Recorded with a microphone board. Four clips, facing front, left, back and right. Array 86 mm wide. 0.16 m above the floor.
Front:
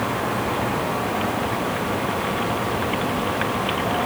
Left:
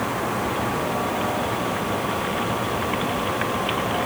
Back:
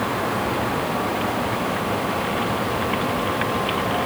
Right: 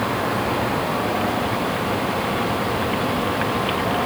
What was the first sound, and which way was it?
Only background noise.